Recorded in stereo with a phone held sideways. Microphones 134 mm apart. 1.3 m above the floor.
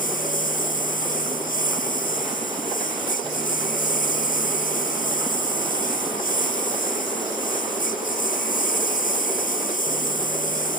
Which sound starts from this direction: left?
A lawn mower, at 0.0 s.